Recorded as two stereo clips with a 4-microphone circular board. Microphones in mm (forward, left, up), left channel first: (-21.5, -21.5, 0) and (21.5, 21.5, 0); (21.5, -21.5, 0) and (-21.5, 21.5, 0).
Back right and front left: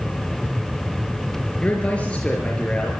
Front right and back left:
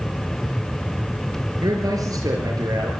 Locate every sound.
1.6 s a man speaking: 155° left, 5.5 m; by 2.9 s 150° left, 6 m